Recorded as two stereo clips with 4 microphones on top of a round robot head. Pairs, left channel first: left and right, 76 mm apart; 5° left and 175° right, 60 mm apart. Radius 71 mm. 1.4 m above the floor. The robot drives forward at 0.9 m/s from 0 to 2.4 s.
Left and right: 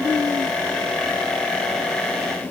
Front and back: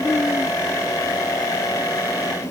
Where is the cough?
No cough in this recording.